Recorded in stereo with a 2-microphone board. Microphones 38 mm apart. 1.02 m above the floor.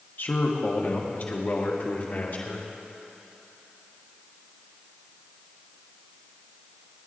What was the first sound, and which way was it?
A man speaking, 55° left (ahead or behind).